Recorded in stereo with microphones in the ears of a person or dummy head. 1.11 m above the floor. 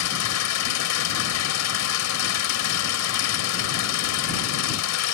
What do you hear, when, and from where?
0.0 s an engine running: 80° left